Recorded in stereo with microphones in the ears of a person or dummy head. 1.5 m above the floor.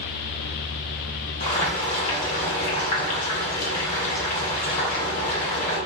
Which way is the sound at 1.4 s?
45° left (ahead or behind).